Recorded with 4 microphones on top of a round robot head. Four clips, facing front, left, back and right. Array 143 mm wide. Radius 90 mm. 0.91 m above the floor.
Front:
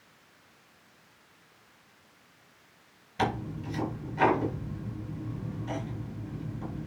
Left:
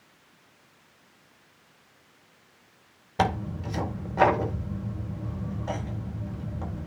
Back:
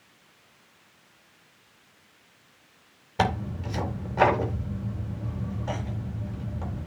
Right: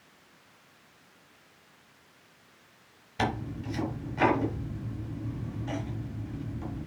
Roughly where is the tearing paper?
Behind left.